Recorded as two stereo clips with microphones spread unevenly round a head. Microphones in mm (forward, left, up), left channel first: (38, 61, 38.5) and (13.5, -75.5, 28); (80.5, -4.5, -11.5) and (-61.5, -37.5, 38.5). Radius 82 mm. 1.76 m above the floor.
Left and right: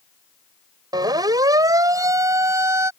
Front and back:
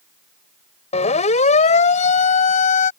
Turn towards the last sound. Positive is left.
turn(degrees=-30)